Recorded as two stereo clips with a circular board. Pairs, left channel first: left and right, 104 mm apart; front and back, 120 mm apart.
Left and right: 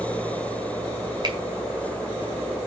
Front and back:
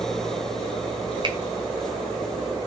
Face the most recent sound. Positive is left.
turn(degrees=-135)